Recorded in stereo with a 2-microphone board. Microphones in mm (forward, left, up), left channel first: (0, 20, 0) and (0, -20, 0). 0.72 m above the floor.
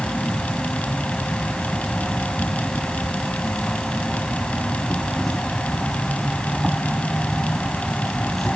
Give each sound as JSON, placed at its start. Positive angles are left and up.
{"t": 0.0, "sound": "an insect", "side_deg": 5}